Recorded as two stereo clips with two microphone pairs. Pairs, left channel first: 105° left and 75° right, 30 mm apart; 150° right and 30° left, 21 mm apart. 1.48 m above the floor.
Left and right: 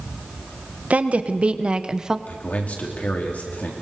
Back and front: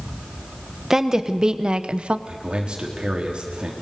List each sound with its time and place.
0.9 s a woman speaking: 40° right, 1.4 m; by 2.2 s 5° right, 0.9 m
2.3 s a man speaking: 75° left, 4 m